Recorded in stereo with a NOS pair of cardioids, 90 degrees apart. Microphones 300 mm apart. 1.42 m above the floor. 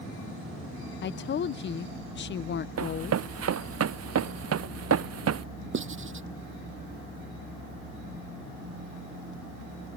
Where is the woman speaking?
40° left.